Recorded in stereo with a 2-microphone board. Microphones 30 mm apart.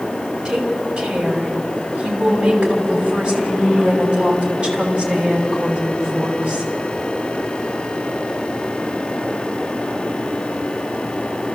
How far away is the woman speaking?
About 6 m.